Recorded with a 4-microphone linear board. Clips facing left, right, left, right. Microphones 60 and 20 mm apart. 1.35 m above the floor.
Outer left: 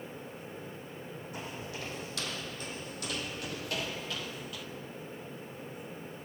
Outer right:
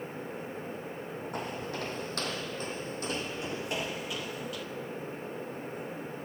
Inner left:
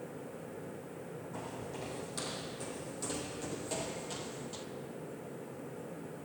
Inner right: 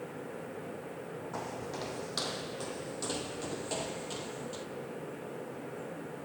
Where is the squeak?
No squeak in this recording.